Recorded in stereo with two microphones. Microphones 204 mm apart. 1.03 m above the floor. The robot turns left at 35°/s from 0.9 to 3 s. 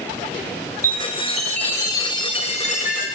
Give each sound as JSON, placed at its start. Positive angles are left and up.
{"t": 0.8, "sound": "a chime", "azimuth_deg": -165, "distance_m": 0.7}